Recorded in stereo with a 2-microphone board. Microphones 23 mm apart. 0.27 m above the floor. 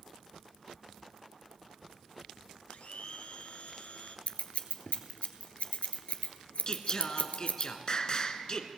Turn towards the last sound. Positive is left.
turn(degrees=40)  # may be behind; listen again after turning